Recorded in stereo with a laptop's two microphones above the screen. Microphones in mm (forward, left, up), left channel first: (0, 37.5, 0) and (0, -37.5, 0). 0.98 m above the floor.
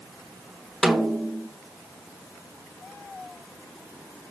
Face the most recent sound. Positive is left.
turn(degrees=-5)  # may be behind; listen again after turning